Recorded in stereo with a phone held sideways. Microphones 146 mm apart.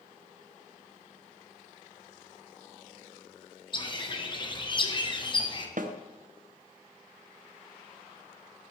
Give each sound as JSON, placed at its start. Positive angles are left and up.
{"t": 3.7, "sound": "a bird", "side_deg": 30, "distance_m": 1.0}
{"t": 5.8, "sound": "a snare drum", "side_deg": -65, "distance_m": 0.8}